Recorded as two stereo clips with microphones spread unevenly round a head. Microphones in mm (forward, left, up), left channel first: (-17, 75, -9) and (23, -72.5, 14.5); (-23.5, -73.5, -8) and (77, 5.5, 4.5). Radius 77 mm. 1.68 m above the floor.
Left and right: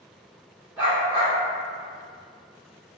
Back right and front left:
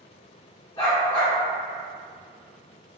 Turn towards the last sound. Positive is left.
turn(degrees=-120)